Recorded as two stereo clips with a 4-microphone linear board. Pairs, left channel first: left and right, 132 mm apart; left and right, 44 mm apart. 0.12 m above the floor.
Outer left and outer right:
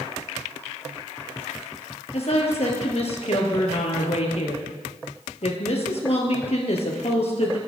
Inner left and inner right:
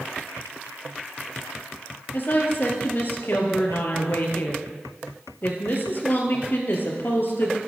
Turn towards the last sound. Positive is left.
turn(degrees=55)  # may be behind; listen again after turning